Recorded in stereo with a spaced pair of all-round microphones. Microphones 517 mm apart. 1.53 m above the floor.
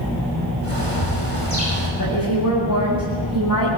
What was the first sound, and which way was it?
A bird, 80° left.